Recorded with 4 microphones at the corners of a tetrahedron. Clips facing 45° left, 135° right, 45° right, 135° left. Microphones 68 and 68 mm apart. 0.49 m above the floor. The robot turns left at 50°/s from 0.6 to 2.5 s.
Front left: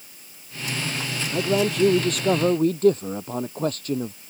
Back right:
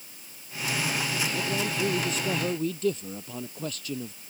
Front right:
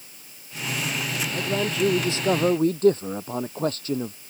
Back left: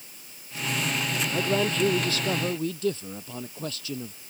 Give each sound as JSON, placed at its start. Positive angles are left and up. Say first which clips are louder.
{"t": 1.3, "sound": "a man speaking", "louder": "front left 7 dB, back left 1 dB", "azimuth_deg": 60}